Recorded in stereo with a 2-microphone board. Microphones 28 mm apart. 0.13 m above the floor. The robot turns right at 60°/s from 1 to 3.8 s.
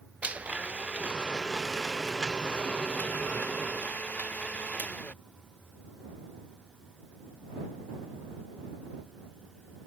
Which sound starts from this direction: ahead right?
A blender, at 0.2 s.